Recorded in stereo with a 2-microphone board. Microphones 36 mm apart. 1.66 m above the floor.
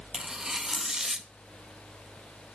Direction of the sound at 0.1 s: 15° right (ahead or behind).